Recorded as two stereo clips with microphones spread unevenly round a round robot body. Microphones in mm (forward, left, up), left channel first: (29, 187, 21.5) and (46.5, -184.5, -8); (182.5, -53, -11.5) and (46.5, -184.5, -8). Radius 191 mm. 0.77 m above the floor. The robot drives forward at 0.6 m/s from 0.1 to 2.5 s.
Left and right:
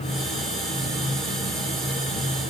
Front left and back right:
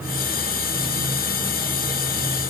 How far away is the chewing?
I don't hear chewing.